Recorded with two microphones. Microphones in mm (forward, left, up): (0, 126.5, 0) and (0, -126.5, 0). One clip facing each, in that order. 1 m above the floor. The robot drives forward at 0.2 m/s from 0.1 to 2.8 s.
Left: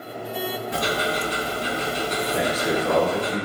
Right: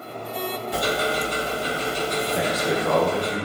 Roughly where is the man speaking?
Centre.